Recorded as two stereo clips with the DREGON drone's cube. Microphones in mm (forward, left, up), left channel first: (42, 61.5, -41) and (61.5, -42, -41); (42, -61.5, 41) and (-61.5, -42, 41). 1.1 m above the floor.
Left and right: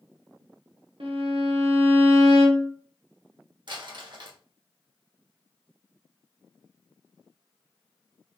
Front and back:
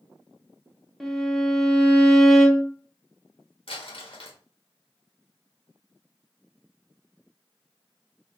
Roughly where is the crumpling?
Ahead right.